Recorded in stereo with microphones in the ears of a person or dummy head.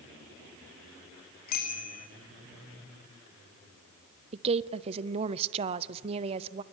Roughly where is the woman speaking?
Right.